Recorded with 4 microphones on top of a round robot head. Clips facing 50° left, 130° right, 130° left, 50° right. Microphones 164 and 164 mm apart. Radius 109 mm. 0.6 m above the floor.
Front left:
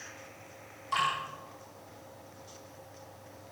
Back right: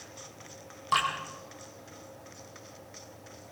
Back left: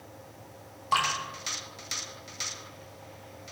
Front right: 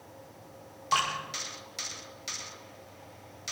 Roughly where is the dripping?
Behind right.